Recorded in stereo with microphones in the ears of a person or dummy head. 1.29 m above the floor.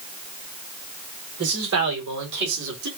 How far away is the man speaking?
About 4.5 m.